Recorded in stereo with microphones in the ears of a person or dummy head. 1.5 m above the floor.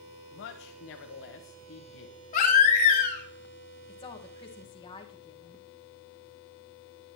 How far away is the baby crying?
About 1.0 m.